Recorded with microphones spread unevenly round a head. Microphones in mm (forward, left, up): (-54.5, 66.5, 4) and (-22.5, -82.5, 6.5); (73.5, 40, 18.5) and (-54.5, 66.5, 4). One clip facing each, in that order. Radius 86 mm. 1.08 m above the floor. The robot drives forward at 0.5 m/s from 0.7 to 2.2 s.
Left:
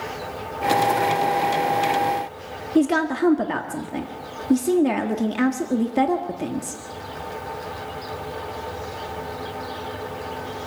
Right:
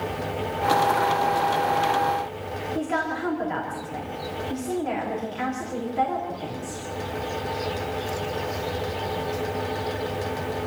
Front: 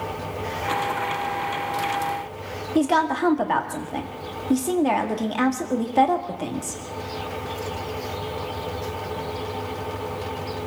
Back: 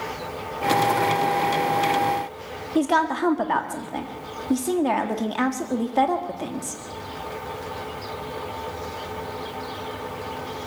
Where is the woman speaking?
75° left, 1.8 m.